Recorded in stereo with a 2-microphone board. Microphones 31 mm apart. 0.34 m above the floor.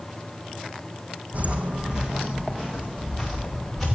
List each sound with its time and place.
1.3 s footsteps: 55° right (ahead or behind), 1.3 m; by 3.9 s centre (ahead or behind), 4 m